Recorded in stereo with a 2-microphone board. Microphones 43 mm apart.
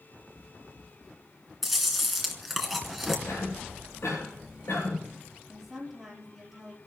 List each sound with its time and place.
1.6 s chewing: centre (ahead or behind), 2.5 m
3.3 s a cough: 75° left (ahead or behind), 10 m
5.5 s a woman speaking: 5° right (ahead or behind), 6 m